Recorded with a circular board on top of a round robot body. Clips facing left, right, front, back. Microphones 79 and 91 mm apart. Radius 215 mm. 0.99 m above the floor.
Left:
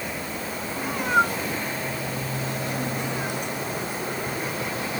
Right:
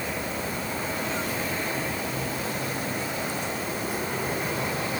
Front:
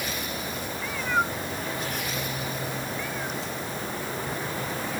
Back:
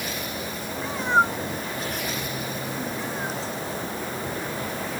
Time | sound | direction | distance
0.8 | a cat meowing | 120° left | ?